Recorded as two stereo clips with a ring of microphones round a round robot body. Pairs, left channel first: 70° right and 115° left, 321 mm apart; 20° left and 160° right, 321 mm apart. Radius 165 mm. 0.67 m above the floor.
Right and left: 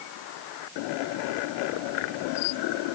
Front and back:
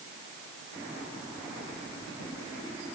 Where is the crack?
I don't hear a crack.